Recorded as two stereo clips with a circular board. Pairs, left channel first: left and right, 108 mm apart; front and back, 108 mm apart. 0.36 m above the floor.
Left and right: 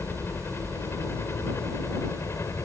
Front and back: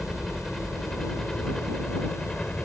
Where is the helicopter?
85° left; by 2.6 s 70° left.